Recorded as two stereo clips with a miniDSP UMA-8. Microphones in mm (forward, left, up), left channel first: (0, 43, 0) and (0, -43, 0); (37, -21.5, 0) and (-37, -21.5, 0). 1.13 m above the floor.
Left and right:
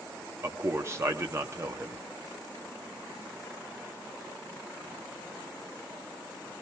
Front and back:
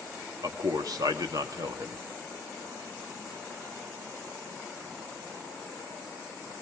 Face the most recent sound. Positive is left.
turn(degrees=-150)